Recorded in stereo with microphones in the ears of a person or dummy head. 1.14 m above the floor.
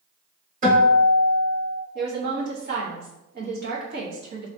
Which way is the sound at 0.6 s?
40° right (ahead or behind).